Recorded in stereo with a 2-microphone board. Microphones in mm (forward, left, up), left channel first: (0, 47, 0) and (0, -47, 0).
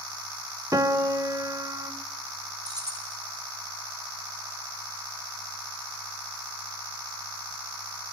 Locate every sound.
0.7 s a piano: 35° right (ahead or behind), 0.8 m
2.6 s keys jangling: 40° right (ahead or behind), 3 m